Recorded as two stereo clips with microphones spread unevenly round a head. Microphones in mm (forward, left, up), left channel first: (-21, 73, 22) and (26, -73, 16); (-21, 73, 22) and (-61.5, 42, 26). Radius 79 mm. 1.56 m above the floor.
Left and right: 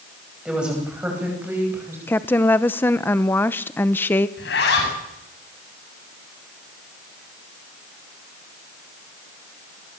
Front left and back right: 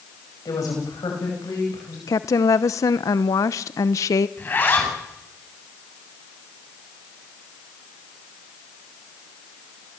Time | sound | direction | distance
0.5 | a woman speaking | 15° left | 10 m
2.1 | a woman speaking | 35° left | 0.8 m
4.4 | a zipper | 90° left | 8 m